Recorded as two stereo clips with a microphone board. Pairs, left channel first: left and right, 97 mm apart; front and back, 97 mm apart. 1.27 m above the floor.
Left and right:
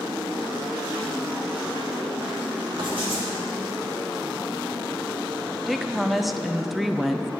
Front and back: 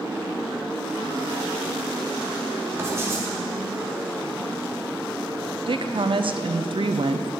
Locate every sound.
2.8 s writing: 120° right, 2.5 m
5.7 s a woman speaking: straight behind, 0.6 m